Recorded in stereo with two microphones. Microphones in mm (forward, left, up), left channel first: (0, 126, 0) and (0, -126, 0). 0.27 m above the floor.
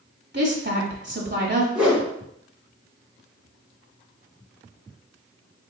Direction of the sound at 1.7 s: 5° right (ahead or behind).